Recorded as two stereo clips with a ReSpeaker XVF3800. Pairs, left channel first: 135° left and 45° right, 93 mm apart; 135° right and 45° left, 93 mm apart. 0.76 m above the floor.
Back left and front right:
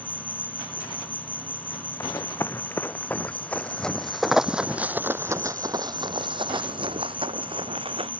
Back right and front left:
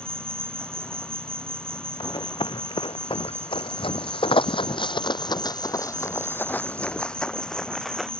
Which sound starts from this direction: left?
An insect, at 0.0 s.